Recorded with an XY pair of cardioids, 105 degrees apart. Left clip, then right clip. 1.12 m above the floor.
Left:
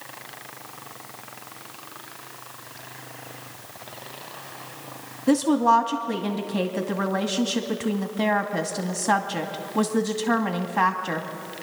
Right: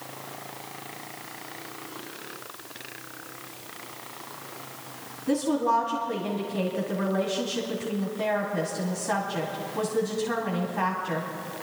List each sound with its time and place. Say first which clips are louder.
5.3 s a woman speaking: left 5 dB; 65° left, 1.8 m